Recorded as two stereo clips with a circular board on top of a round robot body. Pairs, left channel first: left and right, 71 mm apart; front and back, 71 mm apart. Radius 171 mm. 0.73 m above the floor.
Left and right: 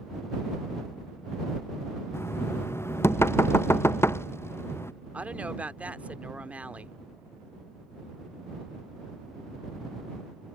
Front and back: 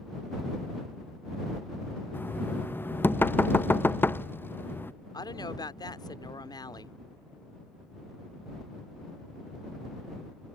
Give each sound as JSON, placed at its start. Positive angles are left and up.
{"t": 2.1, "sound": "knocking", "azimuth_deg": 50}
{"t": 5.1, "sound": "a woman speaking", "azimuth_deg": -20}